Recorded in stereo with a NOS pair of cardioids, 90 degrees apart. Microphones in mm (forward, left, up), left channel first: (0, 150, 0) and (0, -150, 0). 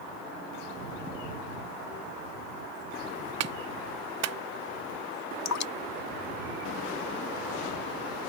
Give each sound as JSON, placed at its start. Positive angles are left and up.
{"t": 3.4, "sound": "a clap", "azimuth_deg": -60}
{"t": 5.5, "sound": "dripping", "azimuth_deg": 65}